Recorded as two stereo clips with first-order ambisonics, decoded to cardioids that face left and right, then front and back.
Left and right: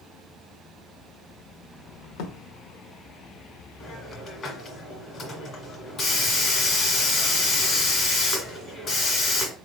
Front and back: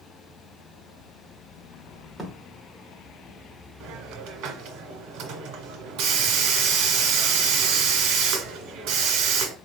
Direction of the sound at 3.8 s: 150° left.